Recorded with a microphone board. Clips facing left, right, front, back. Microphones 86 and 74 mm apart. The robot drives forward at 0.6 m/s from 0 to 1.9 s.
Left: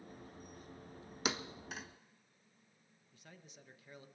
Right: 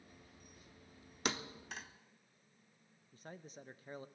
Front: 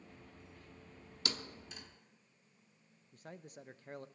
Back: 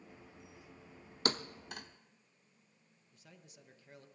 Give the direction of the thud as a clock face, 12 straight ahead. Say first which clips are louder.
Even, back 7 dB; 6 o'clock.